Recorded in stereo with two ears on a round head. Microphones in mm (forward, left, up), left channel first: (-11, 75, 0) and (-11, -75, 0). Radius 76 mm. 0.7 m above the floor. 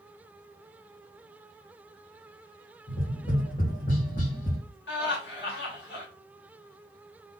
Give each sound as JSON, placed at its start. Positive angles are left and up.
{"t": 2.9, "sound": "tapping", "side_deg": 50, "distance_m": 2.5}
{"t": 4.9, "sound": "laughter", "side_deg": 70, "distance_m": 3.0}